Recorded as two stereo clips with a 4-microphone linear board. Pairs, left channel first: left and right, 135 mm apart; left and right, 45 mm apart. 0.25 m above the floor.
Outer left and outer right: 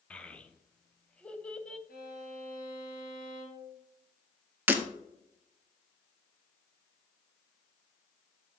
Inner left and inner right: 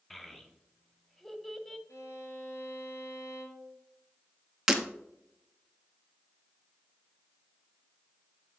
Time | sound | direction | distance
0.1 | a child speaking | 10° left (ahead or behind) | 0.8 m
1.9 | a violin | 80° left | 2 m
4.7 | breaking glass | 15° right (ahead or behind) | 0.8 m